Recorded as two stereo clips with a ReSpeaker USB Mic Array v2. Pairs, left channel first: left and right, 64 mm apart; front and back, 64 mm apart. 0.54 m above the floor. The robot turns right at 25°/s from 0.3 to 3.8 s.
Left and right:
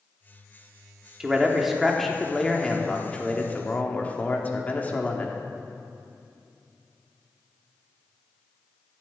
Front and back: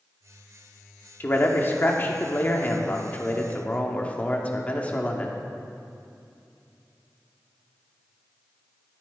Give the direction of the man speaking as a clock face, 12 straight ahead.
1 o'clock.